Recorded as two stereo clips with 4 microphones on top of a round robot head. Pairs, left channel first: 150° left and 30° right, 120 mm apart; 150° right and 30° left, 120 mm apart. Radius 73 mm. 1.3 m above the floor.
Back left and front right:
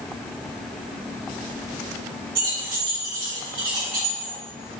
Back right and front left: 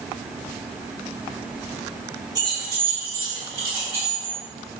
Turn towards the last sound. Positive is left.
turn(degrees=0)